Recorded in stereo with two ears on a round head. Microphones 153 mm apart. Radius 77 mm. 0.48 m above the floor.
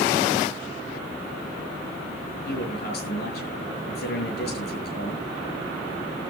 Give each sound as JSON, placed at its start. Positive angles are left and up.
{"t": 2.5, "sound": "a man speaking", "side_deg": 65, "distance_m": 7.0}